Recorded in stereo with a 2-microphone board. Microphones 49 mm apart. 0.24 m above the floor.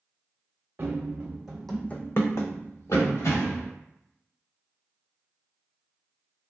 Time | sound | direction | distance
0.8 | running footsteps | 40° right (ahead or behind) | 1.1 m